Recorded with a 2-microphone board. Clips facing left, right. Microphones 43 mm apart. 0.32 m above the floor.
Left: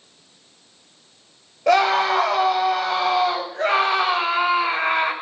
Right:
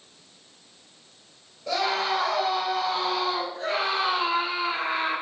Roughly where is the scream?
Left.